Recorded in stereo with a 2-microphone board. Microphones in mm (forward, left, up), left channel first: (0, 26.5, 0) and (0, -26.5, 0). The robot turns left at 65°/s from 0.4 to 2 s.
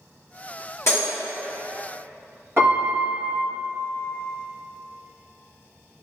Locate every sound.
0.9 s breaking glass: 60° left (ahead or behind), 1.9 m; by 1.1 s 45° left (ahead or behind), 1.9 m
2.6 s a piano: 45° right (ahead or behind), 1.7 m